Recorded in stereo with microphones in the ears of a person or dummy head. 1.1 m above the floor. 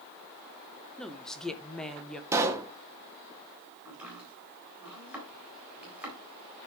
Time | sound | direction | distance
1.0 | a woman speaking | 5° left (ahead or behind) | 0.9 m
2.3 | a pop | 15° right (ahead or behind) | 0.9 m
3.9 | chopping | 5° right (ahead or behind) | 4 m